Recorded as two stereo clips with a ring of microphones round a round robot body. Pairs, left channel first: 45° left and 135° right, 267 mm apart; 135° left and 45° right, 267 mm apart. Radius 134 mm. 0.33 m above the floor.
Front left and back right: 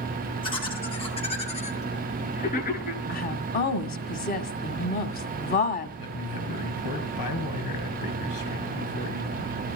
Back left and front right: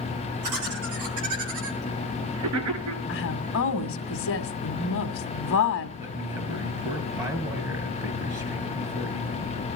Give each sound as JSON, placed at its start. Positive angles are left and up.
{"t": 0.4, "sound": "laughter", "azimuth_deg": -25, "distance_m": 7.5}
{"t": 3.1, "sound": "a woman speaking", "azimuth_deg": 100, "distance_m": 2.0}
{"t": 6.0, "sound": "a man speaking", "azimuth_deg": 35, "distance_m": 4.5}